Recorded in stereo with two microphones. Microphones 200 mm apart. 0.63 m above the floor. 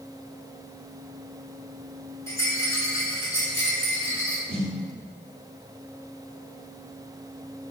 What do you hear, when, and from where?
2.3 s a rattle: 15° left (ahead or behind), 2.0 m
4.5 s a snare drum: 55° right (ahead or behind), 0.9 m